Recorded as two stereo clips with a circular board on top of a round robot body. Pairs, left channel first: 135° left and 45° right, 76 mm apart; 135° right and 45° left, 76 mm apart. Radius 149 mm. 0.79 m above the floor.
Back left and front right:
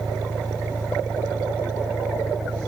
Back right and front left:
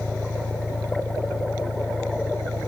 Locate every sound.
0.0 s an engine running: 135° right